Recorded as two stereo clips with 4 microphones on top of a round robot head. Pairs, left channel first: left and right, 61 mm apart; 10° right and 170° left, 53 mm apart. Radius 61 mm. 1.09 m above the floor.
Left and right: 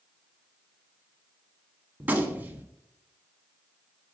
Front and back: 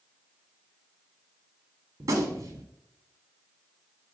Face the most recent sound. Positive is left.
turn(degrees=-155)